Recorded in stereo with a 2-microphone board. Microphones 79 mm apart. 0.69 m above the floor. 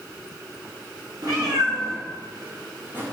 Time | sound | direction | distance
1.2 | a cat meowing | 60° right (ahead or behind) | 1.1 m